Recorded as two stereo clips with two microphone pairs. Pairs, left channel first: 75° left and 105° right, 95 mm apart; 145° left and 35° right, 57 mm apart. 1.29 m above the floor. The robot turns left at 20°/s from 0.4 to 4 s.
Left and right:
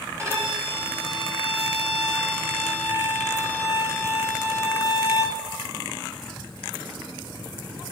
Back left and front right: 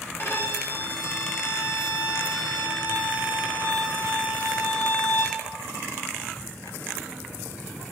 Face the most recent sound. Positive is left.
turn(degrees=125)